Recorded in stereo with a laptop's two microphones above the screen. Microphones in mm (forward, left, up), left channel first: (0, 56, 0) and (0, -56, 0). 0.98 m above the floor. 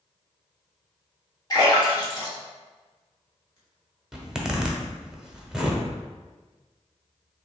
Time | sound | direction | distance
1.5 | a splash | 35° left (ahead or behind) | 1.3 m
4.1 | a zipper | 5° right (ahead or behind) | 0.9 m